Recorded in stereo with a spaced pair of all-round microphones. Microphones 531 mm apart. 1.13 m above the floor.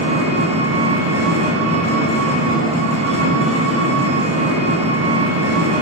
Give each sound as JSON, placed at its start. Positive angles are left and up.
{"t": 0.0, "sound": "an engine running", "side_deg": -10, "distance_m": 0.9}